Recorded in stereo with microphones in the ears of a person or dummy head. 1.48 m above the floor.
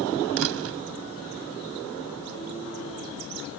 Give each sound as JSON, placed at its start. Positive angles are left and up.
{"t": 0.4, "sound": "a door slam", "side_deg": -75}